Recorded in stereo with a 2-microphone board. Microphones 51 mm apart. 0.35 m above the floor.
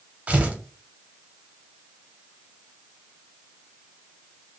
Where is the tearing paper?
25° right (ahead or behind), 0.7 m.